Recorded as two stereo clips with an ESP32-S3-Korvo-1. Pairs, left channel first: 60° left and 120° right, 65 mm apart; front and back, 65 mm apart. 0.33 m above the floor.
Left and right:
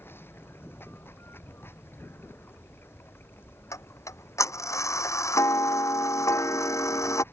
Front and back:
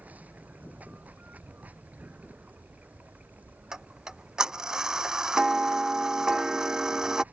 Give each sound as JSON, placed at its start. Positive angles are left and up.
{"t": 0.0, "sound": "running water", "azimuth_deg": 115}
{"t": 3.7, "sound": "ticking", "azimuth_deg": 100}